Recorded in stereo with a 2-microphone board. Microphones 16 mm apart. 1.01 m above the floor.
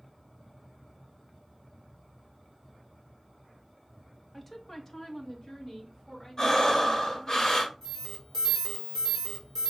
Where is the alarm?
10° left (ahead or behind), 2 m.